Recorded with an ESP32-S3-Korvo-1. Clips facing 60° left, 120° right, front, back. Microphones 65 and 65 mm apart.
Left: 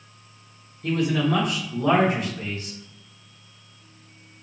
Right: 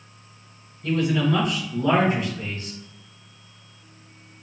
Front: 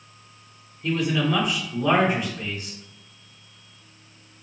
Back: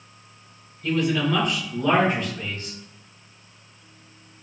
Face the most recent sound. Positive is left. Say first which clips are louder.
# right 1 dB, back 1 dB
turn(degrees=75)